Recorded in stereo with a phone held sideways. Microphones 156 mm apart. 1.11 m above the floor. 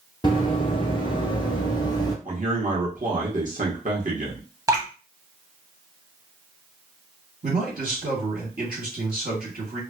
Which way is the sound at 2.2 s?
60° right (ahead or behind).